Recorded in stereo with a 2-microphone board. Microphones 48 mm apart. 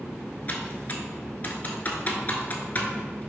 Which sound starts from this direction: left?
Typing on a keyboard, at 0.5 s.